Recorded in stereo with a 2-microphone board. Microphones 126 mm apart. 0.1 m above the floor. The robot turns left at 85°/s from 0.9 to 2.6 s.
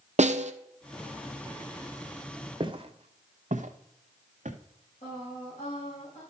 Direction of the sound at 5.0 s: 50° left (ahead or behind).